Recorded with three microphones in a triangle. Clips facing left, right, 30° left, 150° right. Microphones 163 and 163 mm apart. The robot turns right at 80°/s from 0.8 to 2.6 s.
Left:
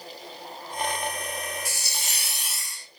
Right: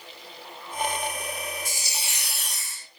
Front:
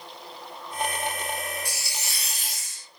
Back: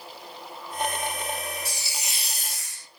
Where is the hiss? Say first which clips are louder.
Even, even; 105° left, 1.0 m; by 2.9 s 175° right, 1.0 m.